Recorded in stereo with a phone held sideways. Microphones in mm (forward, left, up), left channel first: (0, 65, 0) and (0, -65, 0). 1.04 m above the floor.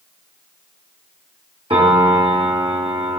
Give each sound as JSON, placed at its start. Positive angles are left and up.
{"t": 1.7, "sound": "a piano", "side_deg": -40, "distance_m": 1.7}